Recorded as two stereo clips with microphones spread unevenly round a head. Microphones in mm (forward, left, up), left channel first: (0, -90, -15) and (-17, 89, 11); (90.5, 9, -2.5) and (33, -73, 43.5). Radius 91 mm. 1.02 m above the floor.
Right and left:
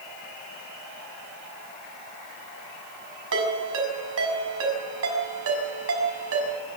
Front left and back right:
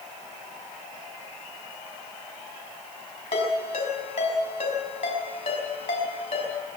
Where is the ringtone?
100° left, 6 m.